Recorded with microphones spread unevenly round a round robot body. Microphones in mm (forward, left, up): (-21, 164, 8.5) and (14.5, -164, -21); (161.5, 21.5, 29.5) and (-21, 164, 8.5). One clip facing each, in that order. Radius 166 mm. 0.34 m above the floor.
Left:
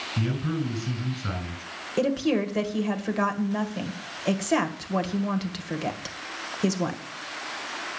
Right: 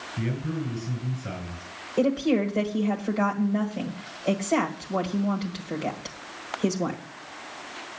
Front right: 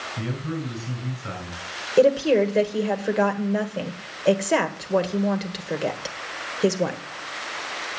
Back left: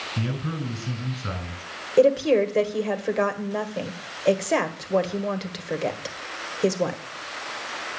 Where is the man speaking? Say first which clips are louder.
Left 2 dB, even; 110° left, 5.5 m.